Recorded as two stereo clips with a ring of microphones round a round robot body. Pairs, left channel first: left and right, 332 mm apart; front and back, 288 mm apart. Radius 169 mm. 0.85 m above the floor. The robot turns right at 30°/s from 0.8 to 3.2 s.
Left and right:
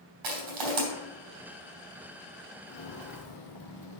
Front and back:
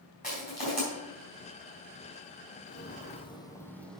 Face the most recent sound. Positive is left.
turn(degrees=90)